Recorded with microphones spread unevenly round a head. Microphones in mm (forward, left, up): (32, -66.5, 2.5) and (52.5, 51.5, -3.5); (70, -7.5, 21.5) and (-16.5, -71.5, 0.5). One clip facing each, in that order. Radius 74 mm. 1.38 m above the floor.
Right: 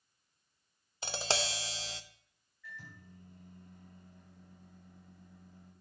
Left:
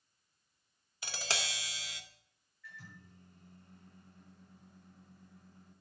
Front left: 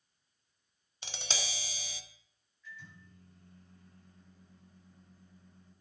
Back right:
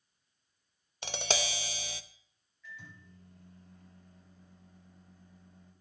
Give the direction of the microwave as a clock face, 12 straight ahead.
4 o'clock.